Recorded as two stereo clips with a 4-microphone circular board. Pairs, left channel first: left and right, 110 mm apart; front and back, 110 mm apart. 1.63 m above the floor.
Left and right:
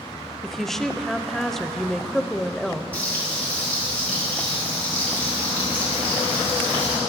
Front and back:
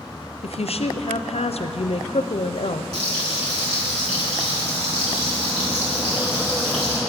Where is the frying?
170° left, 3.5 m.